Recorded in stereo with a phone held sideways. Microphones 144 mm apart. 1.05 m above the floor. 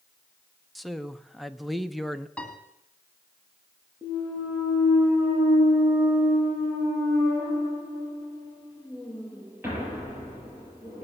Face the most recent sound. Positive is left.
turn(degrees=-15)  # may be behind; listen again after turning